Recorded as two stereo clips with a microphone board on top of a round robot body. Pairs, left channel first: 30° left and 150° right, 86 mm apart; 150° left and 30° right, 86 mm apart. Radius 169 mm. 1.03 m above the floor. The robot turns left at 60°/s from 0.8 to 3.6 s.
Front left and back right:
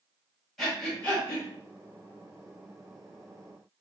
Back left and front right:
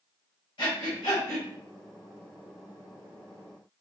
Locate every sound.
0.6 s breathing: 120° left, 1.5 m; by 1.5 s 80° left, 1.5 m